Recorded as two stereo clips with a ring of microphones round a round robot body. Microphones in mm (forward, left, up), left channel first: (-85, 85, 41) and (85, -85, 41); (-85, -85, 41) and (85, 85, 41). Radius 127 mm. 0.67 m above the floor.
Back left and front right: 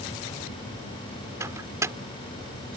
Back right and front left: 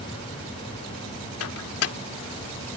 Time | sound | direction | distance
1.4 | a microwave | 125° right | ?